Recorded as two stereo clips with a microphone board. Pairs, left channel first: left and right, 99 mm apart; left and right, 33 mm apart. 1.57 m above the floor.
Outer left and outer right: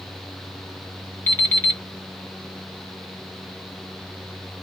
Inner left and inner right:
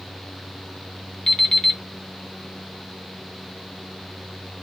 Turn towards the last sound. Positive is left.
turn(degrees=20)  # may be behind; listen again after turning